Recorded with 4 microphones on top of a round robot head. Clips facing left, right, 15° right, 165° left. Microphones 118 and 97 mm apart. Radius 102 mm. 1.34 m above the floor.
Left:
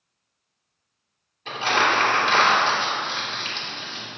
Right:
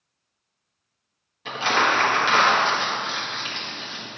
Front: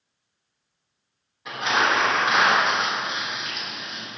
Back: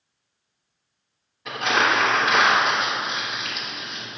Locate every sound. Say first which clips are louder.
1.4 s crumpling: even, back 1 dB; 100° right, 1.4 m